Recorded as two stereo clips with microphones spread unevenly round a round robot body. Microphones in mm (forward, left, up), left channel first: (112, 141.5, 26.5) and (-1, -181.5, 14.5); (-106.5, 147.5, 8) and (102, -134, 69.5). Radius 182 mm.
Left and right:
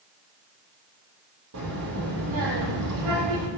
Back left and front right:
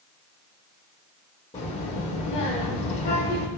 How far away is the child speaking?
About 8.5 m.